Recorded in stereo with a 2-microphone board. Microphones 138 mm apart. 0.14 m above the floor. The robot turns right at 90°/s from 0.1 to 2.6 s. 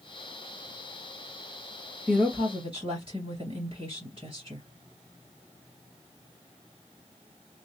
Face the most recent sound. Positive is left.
turn(degrees=-135)